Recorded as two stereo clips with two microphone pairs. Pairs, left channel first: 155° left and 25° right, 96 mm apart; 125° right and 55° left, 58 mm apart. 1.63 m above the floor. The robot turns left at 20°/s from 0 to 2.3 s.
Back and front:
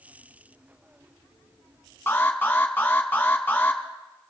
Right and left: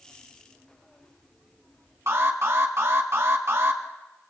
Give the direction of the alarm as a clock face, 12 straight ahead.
9 o'clock.